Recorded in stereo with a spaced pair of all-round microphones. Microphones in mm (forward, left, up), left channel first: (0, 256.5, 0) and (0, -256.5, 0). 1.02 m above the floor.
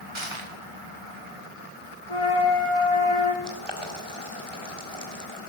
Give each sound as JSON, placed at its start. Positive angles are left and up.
{"t": 0.1, "sound": "crushing", "side_deg": -65, "distance_m": 2.5}
{"t": 2.1, "sound": "a flute", "side_deg": 80, "distance_m": 4.0}
{"t": 3.4, "sound": "boiling", "side_deg": -55, "distance_m": 4.0}